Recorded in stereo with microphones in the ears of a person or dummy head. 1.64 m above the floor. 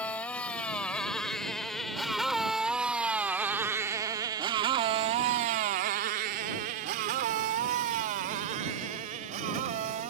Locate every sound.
0.0 s a motorcycle: 10° left (ahead or behind); by 10.1 s 35° right (ahead or behind)